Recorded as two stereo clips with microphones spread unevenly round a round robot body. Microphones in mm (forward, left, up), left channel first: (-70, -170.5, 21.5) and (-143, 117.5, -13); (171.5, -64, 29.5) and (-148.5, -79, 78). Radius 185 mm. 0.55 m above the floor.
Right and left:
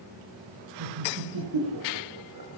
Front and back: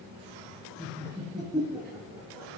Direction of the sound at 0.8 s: 100° left.